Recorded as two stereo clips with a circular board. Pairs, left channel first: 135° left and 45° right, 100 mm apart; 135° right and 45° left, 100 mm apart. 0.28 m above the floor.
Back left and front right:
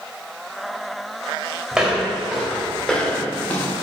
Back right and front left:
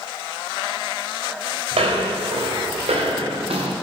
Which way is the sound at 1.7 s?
35° left.